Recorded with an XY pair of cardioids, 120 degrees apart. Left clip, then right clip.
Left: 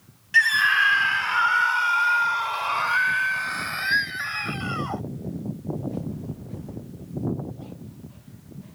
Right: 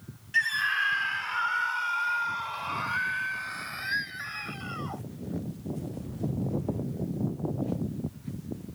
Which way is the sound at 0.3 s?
45° left.